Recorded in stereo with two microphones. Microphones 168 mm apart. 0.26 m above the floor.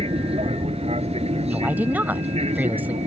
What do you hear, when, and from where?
0.0 s an aircraft: 35° right (ahead or behind); by 3.1 s 40° right (ahead or behind)
1.4 s a woman speaking: 10° right (ahead or behind)